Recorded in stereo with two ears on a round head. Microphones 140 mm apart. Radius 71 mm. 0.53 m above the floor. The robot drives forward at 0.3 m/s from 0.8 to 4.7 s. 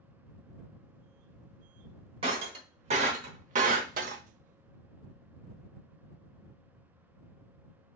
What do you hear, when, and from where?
2.2 s breaking glass: 35° right (ahead or behind), 1.1 m; by 4.2 s 60° right (ahead or behind), 0.8 m